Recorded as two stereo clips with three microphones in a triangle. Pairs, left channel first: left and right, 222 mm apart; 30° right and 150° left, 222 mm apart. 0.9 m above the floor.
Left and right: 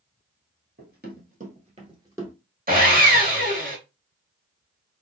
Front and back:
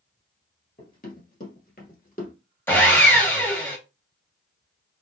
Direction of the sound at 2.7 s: 105° right.